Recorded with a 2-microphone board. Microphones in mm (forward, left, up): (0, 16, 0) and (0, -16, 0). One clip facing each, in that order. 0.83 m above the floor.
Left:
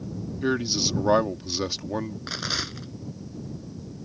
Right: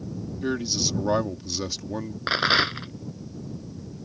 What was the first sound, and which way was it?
A man speaking, 15° left (ahead or behind).